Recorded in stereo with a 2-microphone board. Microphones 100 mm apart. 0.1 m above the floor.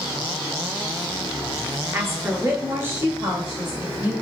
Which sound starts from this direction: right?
A woman speaking, at 1.9 s.